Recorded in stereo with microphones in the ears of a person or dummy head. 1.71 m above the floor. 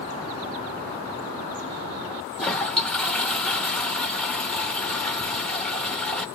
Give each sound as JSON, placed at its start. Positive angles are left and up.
{"t": 2.4, "sound": "a toilet flushing", "side_deg": 0, "distance_m": 0.6}